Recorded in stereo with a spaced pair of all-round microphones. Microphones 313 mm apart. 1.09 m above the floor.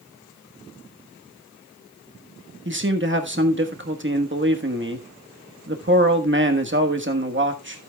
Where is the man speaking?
40° right (ahead or behind), 1.4 m.